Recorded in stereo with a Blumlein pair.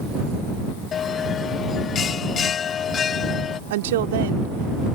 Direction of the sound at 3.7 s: 55° right.